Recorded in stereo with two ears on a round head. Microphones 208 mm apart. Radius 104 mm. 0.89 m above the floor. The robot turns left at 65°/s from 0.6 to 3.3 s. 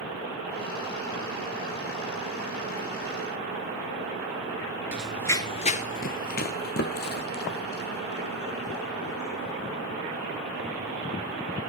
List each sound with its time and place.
4.9 s running footsteps: 5° right (ahead or behind), 0.9 m; by 9.5 s 45° left (ahead or behind), 4.5 m